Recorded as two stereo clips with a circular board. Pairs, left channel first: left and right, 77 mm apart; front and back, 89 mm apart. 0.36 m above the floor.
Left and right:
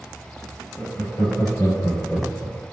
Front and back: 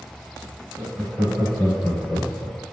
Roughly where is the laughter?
Left.